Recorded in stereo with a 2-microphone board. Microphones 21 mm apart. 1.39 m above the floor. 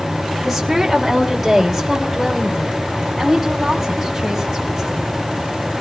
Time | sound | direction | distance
0.5 | a woman speaking | 5° right (ahead or behind) | 1.9 m